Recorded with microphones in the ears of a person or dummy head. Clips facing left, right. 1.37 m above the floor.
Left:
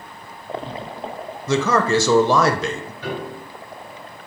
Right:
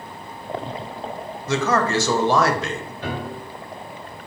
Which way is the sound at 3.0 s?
55° right (ahead or behind).